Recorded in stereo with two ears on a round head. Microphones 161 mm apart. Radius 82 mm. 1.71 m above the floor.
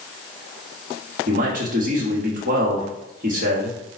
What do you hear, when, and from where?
1.3 s a man speaking: 45° right (ahead or behind), 1.2 m